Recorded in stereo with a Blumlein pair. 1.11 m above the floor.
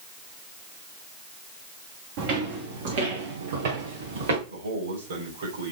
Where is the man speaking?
60° right, 4.5 m.